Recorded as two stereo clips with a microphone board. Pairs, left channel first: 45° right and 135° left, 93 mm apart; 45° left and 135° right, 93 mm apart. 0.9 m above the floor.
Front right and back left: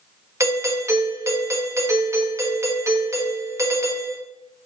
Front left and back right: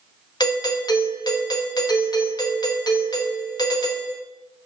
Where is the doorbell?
80° left, 1.2 m.